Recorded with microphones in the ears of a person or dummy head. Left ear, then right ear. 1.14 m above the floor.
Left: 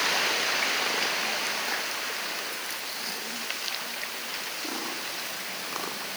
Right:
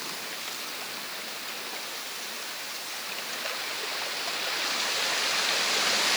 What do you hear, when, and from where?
Only background noise.